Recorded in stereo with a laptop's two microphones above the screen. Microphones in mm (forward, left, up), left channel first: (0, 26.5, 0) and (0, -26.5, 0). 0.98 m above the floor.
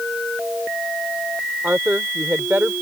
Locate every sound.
1.6 s a woman speaking: 35° right (ahead or behind)